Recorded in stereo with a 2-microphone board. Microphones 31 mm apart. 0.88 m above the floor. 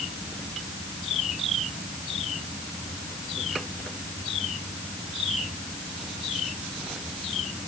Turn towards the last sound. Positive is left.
No sound to turn to.